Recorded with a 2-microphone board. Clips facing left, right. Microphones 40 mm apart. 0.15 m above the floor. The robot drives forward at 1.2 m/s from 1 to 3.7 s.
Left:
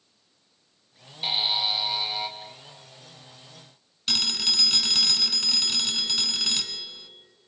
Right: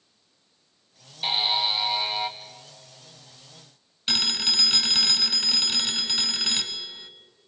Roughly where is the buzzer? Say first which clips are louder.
Right 2 dB; centre.